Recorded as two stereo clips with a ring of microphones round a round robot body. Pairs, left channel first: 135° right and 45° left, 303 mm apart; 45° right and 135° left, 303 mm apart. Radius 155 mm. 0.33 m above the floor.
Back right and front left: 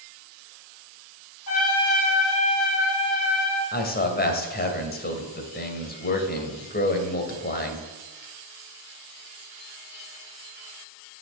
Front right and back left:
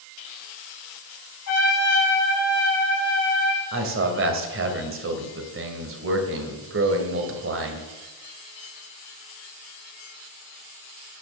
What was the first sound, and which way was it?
A trumpet, 90° right.